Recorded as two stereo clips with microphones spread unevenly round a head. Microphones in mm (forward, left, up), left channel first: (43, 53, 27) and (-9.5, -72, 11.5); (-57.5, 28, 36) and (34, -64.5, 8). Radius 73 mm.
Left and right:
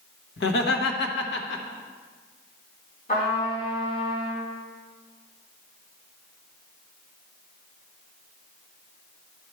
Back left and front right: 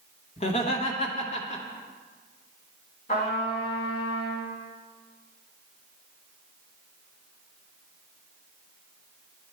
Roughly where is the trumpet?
Left.